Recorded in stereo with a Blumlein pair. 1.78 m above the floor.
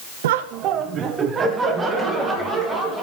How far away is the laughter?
About 0.8 m.